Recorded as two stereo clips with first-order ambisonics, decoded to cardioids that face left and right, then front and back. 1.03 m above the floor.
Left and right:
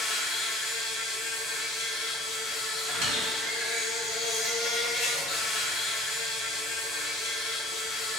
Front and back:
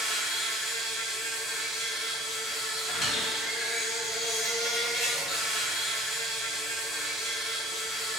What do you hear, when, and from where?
0.0 s an insect: 65° left, 1.2 m
2.9 s a squeak: 60° right, 1.2 m